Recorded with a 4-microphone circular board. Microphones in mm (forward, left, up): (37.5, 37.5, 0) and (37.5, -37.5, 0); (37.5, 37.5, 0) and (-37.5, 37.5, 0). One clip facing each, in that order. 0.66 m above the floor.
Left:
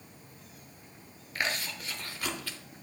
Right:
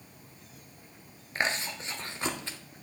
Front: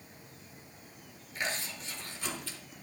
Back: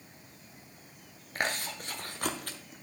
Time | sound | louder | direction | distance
1.4 | chewing | right 2 dB, back 3 dB | 150° right | 0.7 m